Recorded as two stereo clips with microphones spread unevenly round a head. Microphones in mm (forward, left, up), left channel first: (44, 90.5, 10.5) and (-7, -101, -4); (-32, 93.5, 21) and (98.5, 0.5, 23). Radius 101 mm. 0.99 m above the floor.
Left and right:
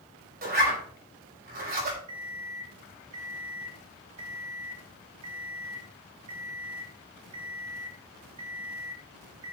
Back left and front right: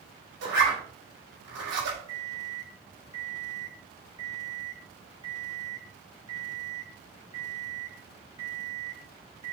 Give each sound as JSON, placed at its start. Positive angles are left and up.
{"t": 0.4, "sound": "a zipper", "azimuth_deg": -65, "distance_m": 6.0}
{"t": 2.1, "sound": "an alarm clock", "azimuth_deg": -110, "distance_m": 2.5}